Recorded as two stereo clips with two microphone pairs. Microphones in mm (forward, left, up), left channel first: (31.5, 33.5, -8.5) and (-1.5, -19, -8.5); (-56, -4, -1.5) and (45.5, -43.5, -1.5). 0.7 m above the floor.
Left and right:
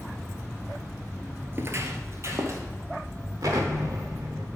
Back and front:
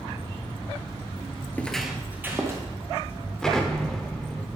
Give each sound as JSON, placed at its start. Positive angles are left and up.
{"t": 1.5, "sound": "footsteps", "azimuth_deg": -140, "distance_m": 0.8}
{"t": 3.4, "sound": "an explosion", "azimuth_deg": -115, "distance_m": 1.0}